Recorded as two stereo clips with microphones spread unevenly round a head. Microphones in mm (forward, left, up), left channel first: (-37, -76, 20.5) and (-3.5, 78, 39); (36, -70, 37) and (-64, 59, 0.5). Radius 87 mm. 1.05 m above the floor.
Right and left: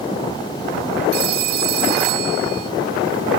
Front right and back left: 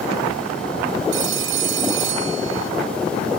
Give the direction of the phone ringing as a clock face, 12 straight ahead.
9 o'clock.